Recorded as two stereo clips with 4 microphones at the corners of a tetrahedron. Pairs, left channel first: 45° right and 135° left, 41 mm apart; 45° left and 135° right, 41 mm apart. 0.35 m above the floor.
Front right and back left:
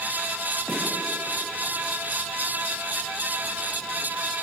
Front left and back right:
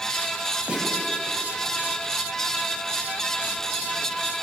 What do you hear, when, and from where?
0.7 s a snare drum: 160° left, 1.7 m